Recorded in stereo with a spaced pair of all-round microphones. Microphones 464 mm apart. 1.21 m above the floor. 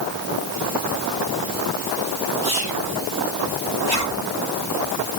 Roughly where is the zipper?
Left.